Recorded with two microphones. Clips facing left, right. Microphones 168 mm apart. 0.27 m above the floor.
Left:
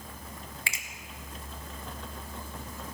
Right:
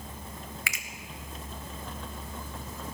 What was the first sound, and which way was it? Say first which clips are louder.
A finger snap: right 1 dB; 25° left (ahead or behind).